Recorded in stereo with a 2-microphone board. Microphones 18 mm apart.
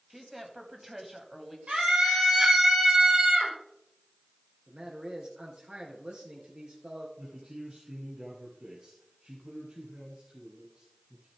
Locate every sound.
0.1 s a woman speaking: 15° right (ahead or behind), 1.4 m
1.7 s a scream: 65° right (ahead or behind), 5.5 m
4.7 s a man speaking: 55° right (ahead or behind), 3 m
7.2 s a man speaking: 55° right (ahead or behind), 2 m